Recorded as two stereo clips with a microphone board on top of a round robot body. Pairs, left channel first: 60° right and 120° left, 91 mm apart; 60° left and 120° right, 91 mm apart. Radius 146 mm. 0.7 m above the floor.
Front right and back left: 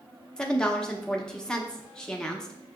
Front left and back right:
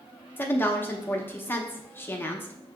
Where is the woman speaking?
15° left, 0.8 m.